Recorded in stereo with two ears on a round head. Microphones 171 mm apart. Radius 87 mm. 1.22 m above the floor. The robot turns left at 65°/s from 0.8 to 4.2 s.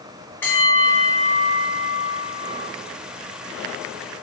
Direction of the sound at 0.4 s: 10° left.